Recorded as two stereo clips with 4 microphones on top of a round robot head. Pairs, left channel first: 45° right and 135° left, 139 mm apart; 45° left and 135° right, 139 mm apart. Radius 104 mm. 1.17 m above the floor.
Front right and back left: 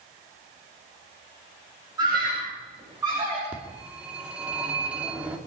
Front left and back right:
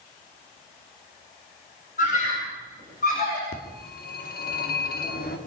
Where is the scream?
70° left, 8.5 m; by 3.4 s 65° left, 8 m.